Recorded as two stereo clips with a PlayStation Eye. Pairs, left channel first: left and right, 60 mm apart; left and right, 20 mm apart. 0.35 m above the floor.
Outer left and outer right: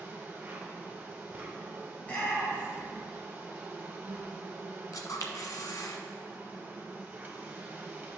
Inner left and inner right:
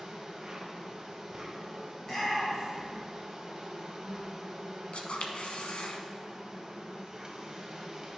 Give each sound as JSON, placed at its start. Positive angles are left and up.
{"t": 0.0, "sound": "an insect", "side_deg": -30, "distance_m": 1.1}
{"t": 2.0, "sound": "a shout", "side_deg": 25, "distance_m": 1.7}
{"t": 4.9, "sound": "a camera shutter", "side_deg": 80, "distance_m": 0.7}